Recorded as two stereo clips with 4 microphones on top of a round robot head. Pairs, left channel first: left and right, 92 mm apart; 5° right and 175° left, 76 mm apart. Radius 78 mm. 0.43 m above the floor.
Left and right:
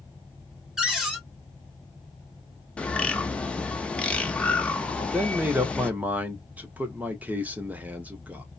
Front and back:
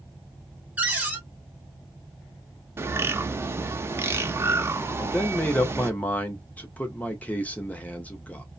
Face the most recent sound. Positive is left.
turn(degrees=-45)